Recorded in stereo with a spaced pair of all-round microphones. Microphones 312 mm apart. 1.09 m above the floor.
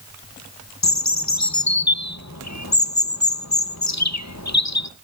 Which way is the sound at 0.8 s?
60° left (ahead or behind).